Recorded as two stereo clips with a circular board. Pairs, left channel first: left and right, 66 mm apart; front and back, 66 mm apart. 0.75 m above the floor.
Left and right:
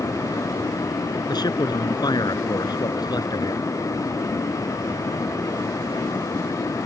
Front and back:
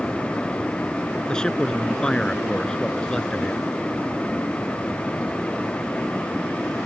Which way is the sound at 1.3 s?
80° left.